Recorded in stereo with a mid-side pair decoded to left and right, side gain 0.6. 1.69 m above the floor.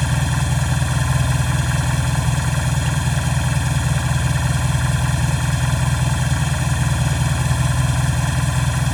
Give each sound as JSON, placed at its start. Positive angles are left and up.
{"t": 0.0, "sound": "an engine running", "azimuth_deg": 5}